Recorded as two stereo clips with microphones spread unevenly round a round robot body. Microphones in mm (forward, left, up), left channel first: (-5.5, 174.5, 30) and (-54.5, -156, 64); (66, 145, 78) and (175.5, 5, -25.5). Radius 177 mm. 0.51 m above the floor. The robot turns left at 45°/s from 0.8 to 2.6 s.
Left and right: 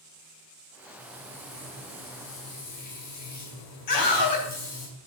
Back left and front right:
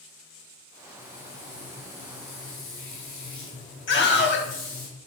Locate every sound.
1.0 s frying: 165° right, 5.5 m; by 4.9 s 120° left, 5.5 m
3.9 s a scream: 100° left, 4 m